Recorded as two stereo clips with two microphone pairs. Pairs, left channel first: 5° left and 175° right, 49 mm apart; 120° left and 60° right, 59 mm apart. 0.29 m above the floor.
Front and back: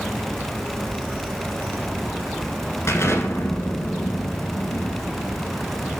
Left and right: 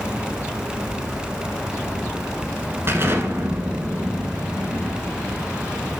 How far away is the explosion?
About 1.2 m.